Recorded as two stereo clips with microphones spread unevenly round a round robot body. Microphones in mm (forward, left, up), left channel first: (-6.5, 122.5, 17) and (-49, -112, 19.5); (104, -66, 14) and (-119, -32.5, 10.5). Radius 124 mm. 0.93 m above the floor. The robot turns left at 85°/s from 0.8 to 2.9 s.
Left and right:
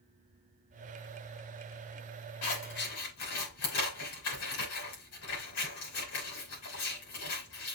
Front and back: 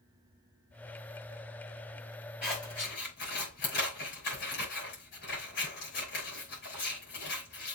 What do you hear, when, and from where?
2.4 s scissors: 85° left, 5.5 m; by 7.8 s 45° left, 5.5 m